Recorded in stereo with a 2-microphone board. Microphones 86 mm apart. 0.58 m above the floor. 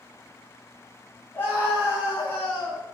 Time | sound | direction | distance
1.3 | a scream | 25° left (ahead or behind) | 5 m